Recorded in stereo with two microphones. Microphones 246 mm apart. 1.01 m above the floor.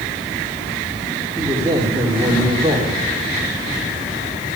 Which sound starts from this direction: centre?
A man speaking, at 1.4 s.